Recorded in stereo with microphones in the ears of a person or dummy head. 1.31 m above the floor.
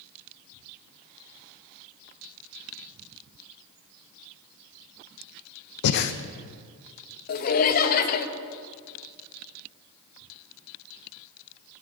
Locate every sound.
5.8 s breathing: 60° left (ahead or behind), 0.7 m
7.3 s laughter: 50° left (ahead or behind), 1.2 m